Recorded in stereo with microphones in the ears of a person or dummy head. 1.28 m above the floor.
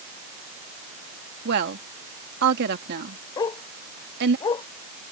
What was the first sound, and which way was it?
A woman speaking, 55° right (ahead or behind).